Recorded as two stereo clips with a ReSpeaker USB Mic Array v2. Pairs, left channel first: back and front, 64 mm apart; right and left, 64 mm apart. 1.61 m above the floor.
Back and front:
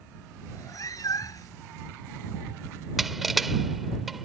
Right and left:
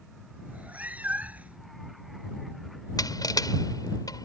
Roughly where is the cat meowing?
Behind left.